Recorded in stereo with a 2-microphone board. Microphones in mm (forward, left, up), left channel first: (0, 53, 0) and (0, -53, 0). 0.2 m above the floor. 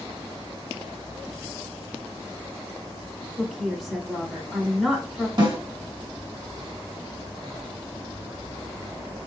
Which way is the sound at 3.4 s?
Centre (ahead or behind).